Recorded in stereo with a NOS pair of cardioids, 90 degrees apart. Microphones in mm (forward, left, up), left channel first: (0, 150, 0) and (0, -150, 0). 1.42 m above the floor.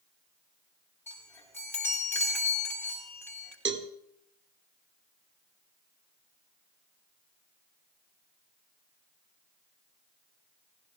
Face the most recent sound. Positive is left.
turn(degrees=-40)